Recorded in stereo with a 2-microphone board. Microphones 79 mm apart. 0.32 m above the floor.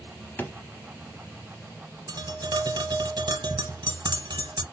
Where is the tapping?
70° right (ahead or behind), 0.9 m.